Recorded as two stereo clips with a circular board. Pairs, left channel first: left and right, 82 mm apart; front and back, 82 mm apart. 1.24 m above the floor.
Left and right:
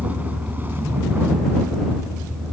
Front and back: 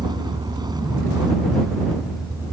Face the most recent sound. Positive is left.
turn(degrees=-140)